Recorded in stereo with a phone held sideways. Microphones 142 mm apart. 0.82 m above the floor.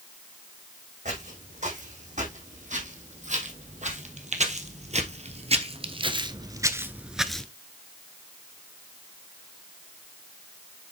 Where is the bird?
I don't hear a bird.